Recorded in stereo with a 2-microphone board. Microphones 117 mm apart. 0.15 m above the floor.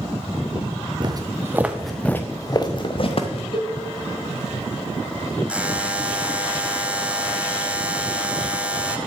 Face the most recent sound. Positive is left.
turn(degrees=-10)  # may be behind; listen again after turning